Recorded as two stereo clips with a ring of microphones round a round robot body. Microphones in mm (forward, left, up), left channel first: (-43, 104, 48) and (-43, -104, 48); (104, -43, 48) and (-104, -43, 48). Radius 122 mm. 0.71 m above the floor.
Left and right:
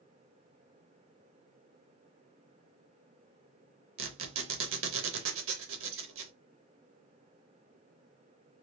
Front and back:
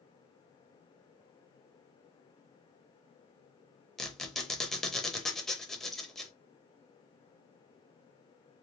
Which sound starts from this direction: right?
A squeak, at 4.0 s.